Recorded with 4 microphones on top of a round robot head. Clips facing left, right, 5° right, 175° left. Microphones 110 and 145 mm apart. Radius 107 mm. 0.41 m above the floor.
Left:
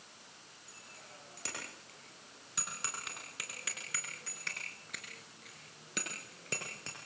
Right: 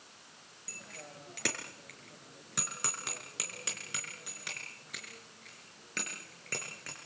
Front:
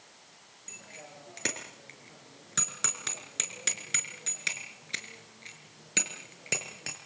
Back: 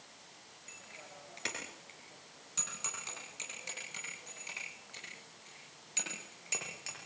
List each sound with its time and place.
0.7 s a bicycle bell: 60° right, 6 m; by 7.0 s 20° left, 6.5 m